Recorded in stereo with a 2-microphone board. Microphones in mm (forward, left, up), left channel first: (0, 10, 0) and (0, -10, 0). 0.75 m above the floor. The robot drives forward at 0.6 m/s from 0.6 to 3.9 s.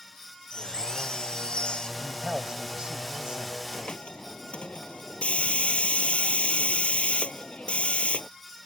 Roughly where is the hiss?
Left.